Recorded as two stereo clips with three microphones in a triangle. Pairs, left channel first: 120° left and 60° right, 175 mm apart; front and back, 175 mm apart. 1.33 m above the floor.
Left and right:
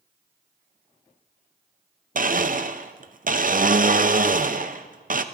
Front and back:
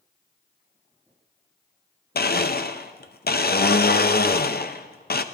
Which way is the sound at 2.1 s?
20° right.